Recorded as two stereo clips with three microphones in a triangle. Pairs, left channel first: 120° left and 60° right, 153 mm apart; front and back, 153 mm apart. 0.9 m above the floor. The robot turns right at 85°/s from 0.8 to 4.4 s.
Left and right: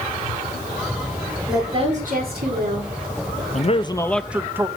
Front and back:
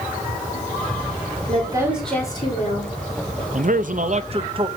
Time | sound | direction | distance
1.5 | a woman speaking | 135° right | 3 m
3.5 | a man speaking | 150° left | 0.6 m